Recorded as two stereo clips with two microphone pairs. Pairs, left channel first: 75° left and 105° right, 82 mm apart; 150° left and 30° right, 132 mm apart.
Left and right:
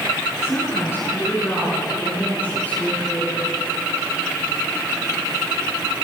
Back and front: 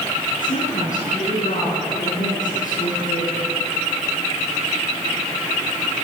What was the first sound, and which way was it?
A woman speaking, 130° left.